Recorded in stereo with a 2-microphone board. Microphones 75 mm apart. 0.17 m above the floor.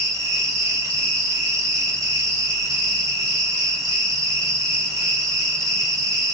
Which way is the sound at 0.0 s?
55° right (ahead or behind).